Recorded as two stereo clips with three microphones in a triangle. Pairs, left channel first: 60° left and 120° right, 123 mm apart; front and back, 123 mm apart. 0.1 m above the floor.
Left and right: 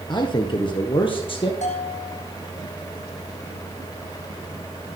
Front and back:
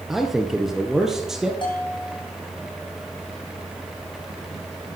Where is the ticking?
No ticking in this recording.